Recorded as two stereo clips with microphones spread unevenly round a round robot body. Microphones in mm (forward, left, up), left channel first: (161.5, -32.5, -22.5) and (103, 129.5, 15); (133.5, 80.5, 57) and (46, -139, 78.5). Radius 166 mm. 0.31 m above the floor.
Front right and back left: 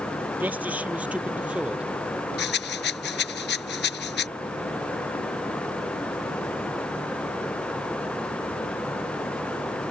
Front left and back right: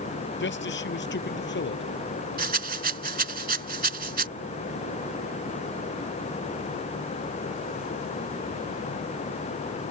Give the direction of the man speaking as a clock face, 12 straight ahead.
11 o'clock.